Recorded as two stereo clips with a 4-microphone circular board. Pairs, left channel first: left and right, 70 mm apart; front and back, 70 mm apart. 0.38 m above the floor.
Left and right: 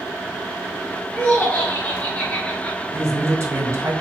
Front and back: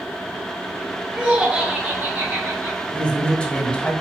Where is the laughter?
120° left, 1.5 m; by 2.8 s 155° left, 2 m.